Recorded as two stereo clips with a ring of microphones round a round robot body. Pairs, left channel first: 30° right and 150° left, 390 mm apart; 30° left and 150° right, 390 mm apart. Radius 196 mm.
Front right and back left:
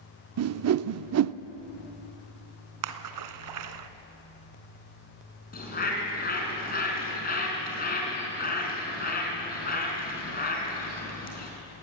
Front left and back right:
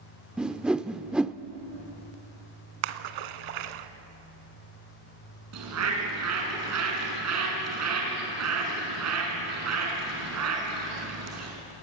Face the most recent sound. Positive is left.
turn(degrees=-100)